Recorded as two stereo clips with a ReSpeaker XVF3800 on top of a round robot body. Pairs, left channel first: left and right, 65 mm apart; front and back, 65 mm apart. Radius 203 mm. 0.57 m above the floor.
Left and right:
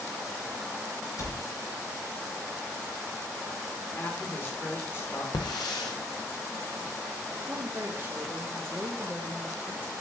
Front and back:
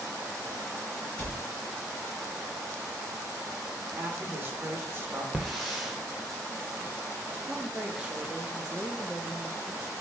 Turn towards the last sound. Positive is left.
turn(degrees=-115)